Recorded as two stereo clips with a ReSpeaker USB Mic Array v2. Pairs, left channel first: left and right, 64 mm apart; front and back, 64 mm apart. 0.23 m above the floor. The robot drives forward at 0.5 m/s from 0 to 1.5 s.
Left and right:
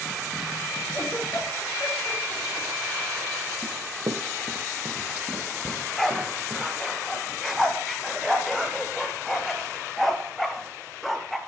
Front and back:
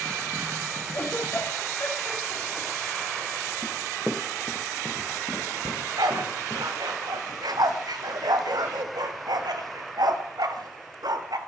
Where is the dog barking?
Straight behind, 1.0 m.